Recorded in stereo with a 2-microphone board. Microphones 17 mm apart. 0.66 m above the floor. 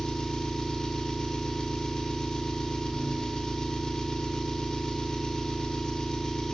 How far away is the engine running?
About 1.5 m.